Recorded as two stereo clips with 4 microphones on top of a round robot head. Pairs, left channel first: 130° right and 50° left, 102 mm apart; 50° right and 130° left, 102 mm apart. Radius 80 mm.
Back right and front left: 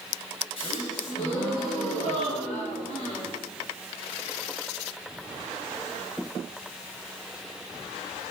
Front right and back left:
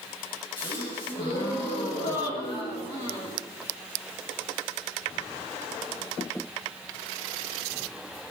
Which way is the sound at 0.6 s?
95° right.